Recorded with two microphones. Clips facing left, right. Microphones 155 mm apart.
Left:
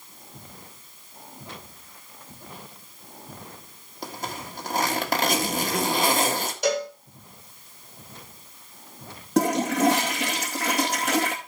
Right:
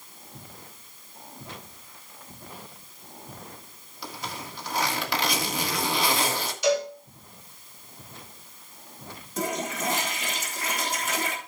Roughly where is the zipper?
Left.